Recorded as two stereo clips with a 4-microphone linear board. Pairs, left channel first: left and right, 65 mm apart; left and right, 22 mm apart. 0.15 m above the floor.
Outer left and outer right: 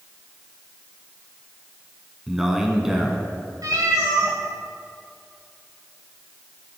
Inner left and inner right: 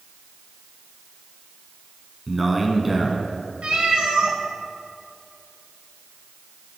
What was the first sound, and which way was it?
A man speaking, 5° right (ahead or behind).